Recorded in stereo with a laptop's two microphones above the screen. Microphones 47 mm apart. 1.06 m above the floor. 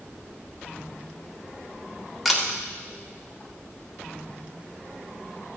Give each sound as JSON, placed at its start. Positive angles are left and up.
{"t": 2.2, "sound": "a camera shutter", "side_deg": -5, "distance_m": 1.9}